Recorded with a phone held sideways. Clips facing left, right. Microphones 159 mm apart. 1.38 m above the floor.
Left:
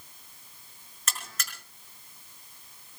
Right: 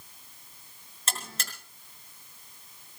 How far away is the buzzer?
About 4.5 m.